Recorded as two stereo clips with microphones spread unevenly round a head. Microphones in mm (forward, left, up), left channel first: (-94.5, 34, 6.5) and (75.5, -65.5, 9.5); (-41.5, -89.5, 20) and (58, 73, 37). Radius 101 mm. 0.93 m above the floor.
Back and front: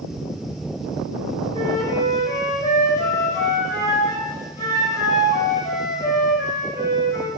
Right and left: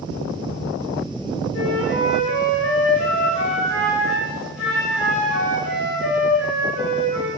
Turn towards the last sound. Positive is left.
turn(degrees=-140)